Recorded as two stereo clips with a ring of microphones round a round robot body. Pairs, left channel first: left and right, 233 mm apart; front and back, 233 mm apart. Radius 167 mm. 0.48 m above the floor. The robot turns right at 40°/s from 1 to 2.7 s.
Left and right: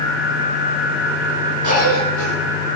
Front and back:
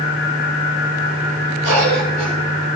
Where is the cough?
135° right, 7.5 m; by 2.3 s 105° right, 7.5 m.